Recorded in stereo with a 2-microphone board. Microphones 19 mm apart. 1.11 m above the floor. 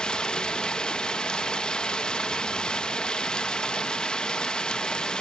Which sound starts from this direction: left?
Running water, at 0.0 s.